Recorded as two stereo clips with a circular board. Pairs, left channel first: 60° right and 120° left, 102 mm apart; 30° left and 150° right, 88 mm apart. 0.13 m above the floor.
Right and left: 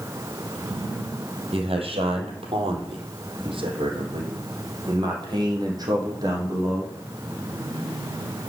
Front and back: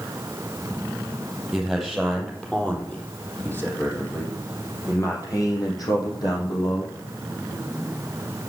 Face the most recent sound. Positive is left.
turn(degrees=65)